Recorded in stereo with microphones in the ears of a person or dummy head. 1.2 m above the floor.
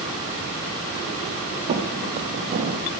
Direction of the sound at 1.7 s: 40° right (ahead or behind).